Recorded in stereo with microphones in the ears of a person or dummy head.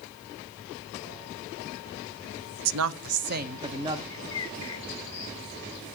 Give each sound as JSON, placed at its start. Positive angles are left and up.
{"t": 2.6, "sound": "a woman speaking", "side_deg": -80, "distance_m": 0.6}
{"t": 4.1, "sound": "a bird", "side_deg": 20, "distance_m": 2.5}